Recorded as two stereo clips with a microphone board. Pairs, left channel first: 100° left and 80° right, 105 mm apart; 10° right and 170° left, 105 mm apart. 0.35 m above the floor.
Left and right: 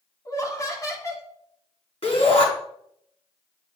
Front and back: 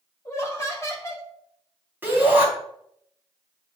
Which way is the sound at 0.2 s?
45° left.